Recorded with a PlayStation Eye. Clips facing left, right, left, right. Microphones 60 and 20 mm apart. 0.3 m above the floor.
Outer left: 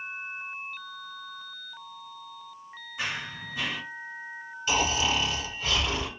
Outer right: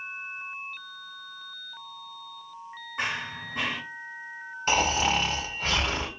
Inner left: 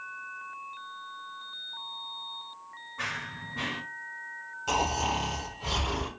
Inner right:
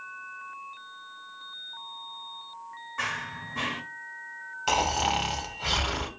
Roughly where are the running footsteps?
Right.